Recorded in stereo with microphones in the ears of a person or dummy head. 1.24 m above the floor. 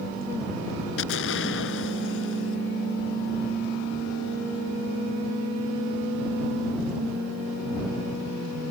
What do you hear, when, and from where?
1.0 s an explosion: 75° left (ahead or behind)